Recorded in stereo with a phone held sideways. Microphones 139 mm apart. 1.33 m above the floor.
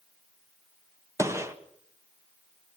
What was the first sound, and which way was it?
A gunshot, 20° right (ahead or behind).